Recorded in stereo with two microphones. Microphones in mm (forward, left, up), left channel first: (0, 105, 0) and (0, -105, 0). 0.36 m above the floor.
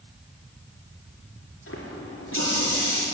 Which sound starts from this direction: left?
A running tap, at 1.7 s.